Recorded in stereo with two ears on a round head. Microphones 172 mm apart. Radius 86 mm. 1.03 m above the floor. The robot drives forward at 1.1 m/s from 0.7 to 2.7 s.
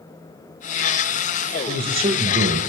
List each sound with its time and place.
1.7 s a man speaking: 25° right (ahead or behind), 1.4 m; by 2.6 s 55° right (ahead or behind), 0.8 m